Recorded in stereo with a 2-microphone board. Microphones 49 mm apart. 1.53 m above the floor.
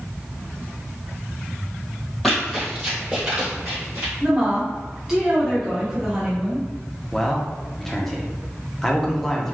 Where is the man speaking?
10° left (ahead or behind), 0.6 m.